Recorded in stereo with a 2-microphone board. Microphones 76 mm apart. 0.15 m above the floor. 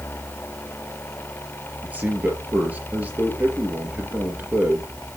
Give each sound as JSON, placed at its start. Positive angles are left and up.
{"t": 1.8, "sound": "a man speaking", "side_deg": -20, "distance_m": 3.5}